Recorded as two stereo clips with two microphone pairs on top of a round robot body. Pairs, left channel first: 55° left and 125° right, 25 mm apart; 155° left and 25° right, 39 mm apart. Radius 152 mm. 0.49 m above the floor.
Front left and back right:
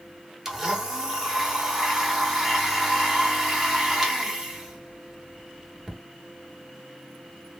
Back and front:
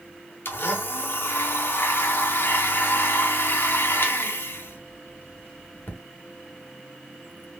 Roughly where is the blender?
Behind.